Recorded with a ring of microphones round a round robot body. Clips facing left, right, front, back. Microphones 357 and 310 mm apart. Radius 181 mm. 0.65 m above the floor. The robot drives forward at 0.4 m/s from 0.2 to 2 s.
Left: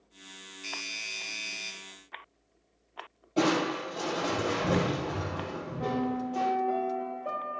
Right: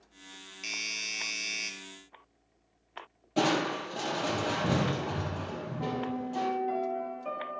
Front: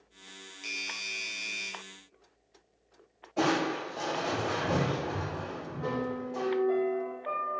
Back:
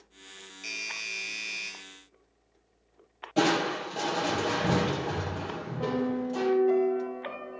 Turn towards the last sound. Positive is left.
turn(degrees=-150)